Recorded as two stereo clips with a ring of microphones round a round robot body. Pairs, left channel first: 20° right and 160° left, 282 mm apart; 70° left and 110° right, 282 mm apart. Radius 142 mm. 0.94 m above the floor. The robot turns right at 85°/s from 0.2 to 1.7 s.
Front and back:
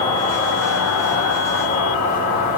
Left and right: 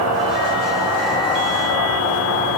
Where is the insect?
90° right, 2.5 m; by 2.6 s 35° left, 2.5 m.